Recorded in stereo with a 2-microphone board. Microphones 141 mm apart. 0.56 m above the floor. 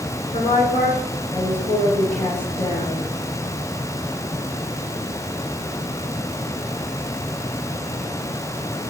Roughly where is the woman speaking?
Left.